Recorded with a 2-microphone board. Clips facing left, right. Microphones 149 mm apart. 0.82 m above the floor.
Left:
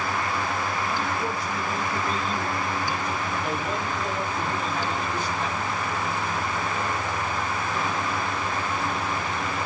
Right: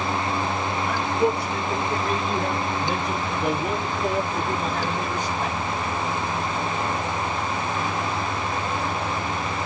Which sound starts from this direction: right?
A man speaking, at 0.8 s.